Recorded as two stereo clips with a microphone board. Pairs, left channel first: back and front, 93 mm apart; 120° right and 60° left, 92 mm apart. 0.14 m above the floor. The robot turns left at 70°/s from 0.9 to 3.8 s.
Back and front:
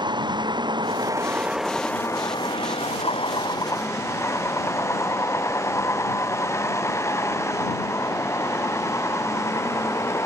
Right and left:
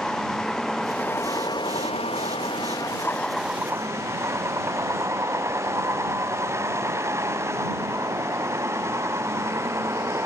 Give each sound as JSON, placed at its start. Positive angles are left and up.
{"t": 0.0, "sound": "a vehicle", "azimuth_deg": -35}